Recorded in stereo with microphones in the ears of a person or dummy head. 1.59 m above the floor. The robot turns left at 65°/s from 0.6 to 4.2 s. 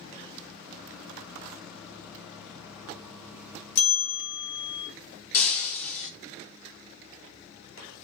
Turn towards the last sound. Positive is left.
turn(degrees=45)  # may be behind; listen again after turning